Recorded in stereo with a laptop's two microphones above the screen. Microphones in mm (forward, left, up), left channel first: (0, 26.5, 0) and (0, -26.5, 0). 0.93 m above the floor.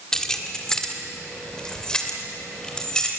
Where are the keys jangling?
10° left (ahead or behind), 1.5 m; by 3.1 s 15° left (ahead or behind), 3 m.